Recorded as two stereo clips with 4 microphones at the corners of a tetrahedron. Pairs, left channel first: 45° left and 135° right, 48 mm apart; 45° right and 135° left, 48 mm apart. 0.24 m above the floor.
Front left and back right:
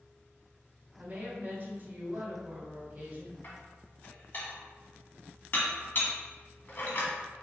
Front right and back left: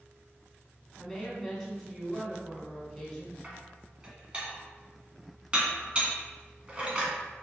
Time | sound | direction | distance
1.0 | a woman speaking | 115° right | 1.8 m
3.4 | dishes clattering | 75° left | 1.3 m